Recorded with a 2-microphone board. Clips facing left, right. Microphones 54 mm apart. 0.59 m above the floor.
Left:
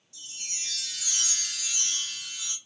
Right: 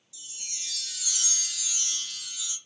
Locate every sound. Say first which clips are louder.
0.1 s a chime: left 3 dB; 50° left (ahead or behind), 1.3 m